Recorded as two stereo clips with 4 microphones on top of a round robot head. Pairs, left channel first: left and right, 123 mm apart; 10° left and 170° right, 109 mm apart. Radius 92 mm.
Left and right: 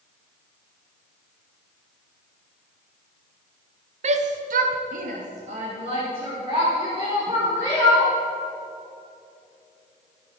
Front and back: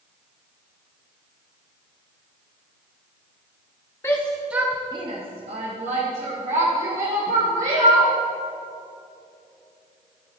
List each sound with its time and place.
4.0 s a shout: 60° right, 1.1 m; by 8.1 s 155° right, 4.5 m